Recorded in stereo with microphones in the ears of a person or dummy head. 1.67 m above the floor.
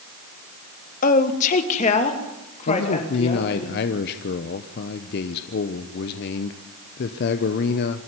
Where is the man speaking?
60° left (ahead or behind), 1.0 m.